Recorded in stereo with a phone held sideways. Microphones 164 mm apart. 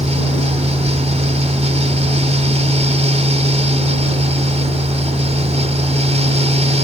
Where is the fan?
40° right (ahead or behind).